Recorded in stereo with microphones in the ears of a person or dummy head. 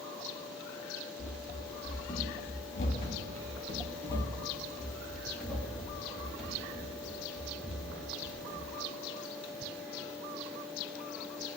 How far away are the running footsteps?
About 2.5 m.